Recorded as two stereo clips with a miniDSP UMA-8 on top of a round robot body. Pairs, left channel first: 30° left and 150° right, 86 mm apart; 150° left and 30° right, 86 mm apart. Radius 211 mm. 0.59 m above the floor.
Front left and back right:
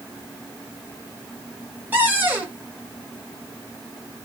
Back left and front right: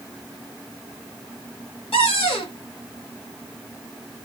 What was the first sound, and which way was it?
A cupboard door, 140° left.